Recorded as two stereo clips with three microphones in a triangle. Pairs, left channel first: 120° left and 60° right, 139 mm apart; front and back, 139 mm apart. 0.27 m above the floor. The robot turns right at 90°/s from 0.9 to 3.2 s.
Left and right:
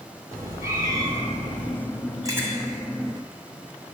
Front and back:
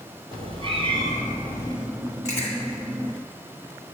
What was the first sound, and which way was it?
A cat meowing, 130° right.